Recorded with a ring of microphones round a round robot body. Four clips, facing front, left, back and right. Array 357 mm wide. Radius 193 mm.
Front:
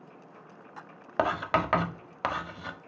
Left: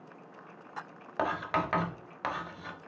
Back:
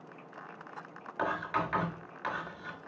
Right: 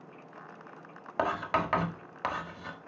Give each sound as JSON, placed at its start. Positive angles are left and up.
{"t": 1.2, "sound": "writing", "azimuth_deg": -5, "distance_m": 1.2}